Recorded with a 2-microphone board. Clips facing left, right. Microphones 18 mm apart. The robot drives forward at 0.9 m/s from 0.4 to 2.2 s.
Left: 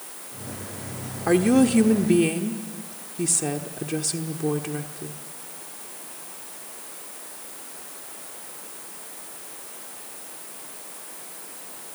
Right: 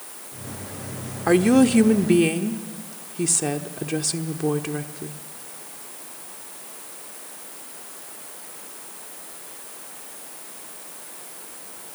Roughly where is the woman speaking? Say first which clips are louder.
Right 2 dB; centre.